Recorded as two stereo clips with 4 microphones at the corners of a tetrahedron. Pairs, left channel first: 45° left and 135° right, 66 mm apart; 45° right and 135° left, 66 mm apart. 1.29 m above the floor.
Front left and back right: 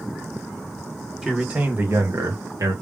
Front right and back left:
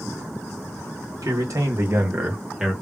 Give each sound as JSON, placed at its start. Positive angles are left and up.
{"t": 1.2, "sound": "a man speaking", "azimuth_deg": 140, "distance_m": 1.5}